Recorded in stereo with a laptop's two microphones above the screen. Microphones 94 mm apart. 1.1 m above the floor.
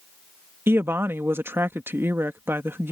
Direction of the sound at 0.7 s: 25° right (ahead or behind).